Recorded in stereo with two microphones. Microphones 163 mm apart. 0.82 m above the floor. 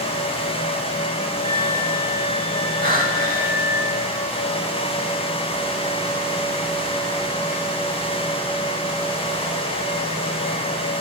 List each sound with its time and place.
1.4 s a flute: 50° left (ahead or behind), 6.5 m
2.8 s breathing: 65° right (ahead or behind), 3 m